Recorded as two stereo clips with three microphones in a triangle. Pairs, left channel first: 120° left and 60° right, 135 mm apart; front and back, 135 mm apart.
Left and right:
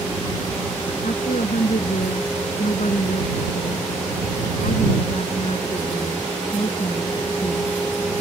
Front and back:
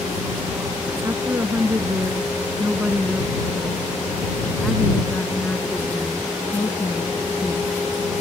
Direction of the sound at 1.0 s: 115° left.